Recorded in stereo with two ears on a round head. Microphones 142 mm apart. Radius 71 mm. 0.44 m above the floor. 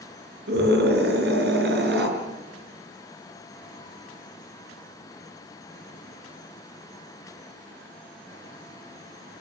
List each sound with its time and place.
0.5 s a scream: 70° right (ahead or behind), 5.5 m